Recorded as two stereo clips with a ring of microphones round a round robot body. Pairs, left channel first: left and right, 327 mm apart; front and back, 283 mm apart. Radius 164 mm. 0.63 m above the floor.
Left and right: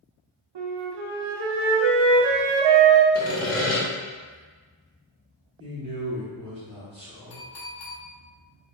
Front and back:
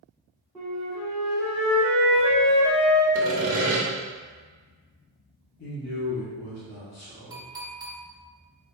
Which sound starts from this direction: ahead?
A man speaking, at 5.6 s.